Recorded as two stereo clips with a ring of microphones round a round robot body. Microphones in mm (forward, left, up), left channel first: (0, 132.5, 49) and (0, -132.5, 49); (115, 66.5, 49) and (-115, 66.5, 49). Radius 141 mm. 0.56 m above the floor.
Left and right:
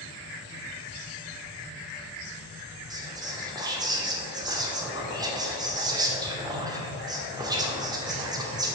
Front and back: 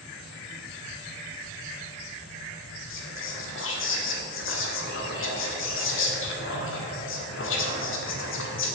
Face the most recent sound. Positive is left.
turn(degrees=-15)